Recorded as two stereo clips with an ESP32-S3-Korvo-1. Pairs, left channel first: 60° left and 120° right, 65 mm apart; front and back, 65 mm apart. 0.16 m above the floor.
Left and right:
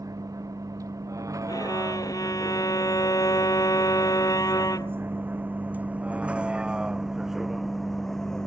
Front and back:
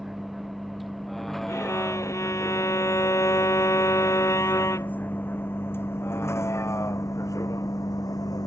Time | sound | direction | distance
0.0 | a vehicle | 95° right | ?
1.5 | a violin | 35° left | ?